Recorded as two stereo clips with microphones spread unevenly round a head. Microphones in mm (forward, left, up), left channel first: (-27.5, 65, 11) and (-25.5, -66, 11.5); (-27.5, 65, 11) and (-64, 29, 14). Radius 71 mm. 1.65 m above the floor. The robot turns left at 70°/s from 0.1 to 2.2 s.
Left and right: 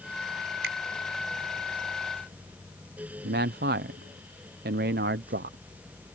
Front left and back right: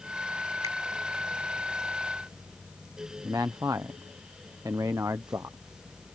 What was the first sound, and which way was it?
A finger snap, 75° right.